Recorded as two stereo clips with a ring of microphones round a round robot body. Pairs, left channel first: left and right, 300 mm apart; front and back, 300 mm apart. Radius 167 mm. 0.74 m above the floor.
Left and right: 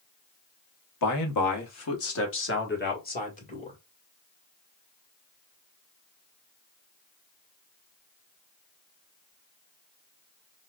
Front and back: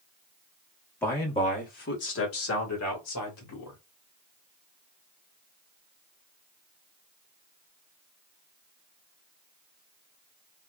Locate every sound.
1.0 s a man speaking: 85° left, 1.4 m; by 3.8 s 20° left, 2.5 m